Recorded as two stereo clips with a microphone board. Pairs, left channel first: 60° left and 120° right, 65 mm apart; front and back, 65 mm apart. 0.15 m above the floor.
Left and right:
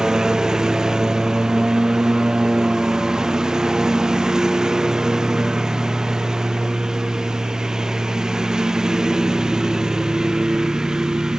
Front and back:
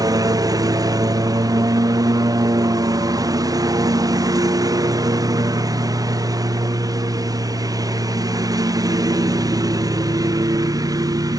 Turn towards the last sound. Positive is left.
turn(degrees=160)